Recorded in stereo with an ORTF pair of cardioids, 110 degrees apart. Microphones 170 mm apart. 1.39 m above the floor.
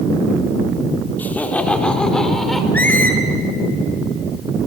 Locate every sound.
1.2 s laughter: 10° left, 3.5 m; by 2.6 s straight ahead, 4.5 m
2.7 s a squeak: 10° left, 5.5 m